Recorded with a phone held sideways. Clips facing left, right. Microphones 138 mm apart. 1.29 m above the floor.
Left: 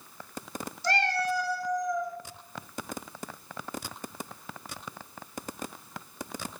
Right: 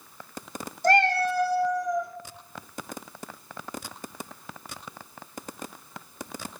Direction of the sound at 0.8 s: 50° right (ahead or behind).